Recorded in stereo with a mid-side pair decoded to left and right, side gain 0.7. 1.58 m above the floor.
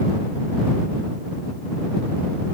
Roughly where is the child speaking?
No child speaking in this recording.